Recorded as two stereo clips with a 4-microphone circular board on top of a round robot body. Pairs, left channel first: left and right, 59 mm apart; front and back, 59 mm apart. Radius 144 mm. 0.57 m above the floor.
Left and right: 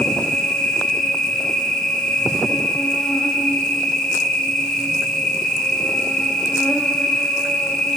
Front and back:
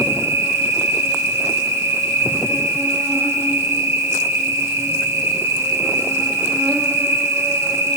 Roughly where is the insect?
Behind.